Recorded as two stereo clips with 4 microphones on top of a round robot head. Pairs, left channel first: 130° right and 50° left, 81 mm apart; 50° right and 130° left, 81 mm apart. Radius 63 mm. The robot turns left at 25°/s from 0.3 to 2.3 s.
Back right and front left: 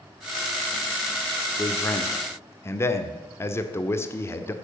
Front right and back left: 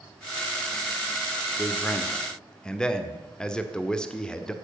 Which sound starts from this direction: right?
A man speaking, at 1.6 s.